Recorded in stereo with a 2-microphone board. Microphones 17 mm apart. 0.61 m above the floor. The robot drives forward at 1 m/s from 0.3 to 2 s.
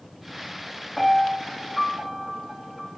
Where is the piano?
5° right (ahead or behind), 4.5 m.